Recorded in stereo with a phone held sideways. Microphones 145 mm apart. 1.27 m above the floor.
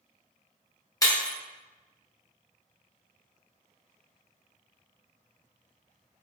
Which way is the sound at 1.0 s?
25° left (ahead or behind).